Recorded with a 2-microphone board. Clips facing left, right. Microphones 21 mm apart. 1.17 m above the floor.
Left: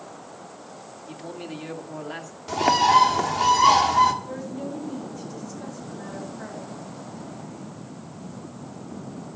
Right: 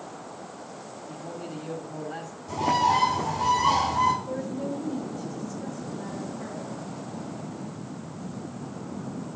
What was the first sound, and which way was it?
A man speaking, 50° left (ahead or behind).